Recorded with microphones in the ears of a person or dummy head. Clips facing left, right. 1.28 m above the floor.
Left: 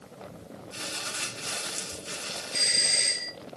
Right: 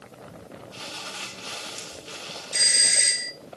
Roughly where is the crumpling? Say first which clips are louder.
Even; left.